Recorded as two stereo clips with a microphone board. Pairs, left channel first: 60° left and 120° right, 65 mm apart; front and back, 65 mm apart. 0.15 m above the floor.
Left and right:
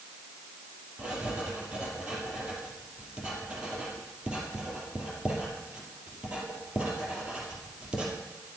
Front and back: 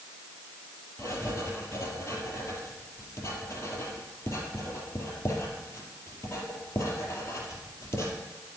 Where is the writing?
45° right, 2.5 m.